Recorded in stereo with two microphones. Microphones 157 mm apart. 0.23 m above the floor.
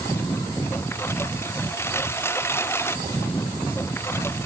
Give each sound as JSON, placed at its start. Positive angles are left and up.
{"t": 0.0, "sound": "a lawn mower", "side_deg": 15}